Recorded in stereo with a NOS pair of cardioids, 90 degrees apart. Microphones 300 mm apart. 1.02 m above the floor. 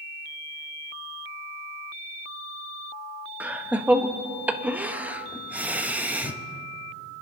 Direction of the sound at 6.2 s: 25° left.